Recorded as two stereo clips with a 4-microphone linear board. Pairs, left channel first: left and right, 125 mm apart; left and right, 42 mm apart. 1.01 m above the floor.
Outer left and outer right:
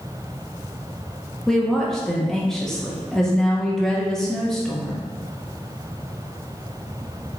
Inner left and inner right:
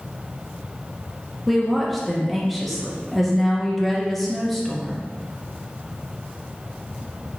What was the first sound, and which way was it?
A woman speaking, 5° left (ahead or behind).